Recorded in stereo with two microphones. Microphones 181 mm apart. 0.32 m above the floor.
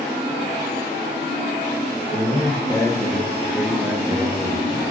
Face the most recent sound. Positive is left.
turn(degrees=-25)  # may be behind; listen again after turning